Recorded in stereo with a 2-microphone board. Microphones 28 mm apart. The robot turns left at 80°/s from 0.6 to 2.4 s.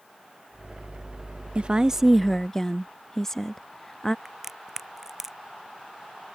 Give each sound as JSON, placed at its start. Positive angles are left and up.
{"t": 1.6, "sound": "a woman speaking", "azimuth_deg": -125}
{"t": 4.2, "sound": "a crack", "side_deg": -15}